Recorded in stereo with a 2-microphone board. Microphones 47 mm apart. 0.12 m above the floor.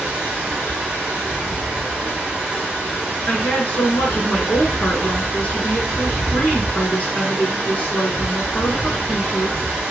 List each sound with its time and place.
0.0 s running water: 25° right (ahead or behind), 2.5 m
3.3 s a woman speaking: 30° left (ahead or behind), 1.4 m